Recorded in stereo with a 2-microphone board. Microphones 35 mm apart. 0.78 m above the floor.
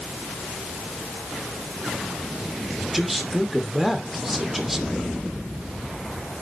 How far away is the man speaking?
About 2.5 m.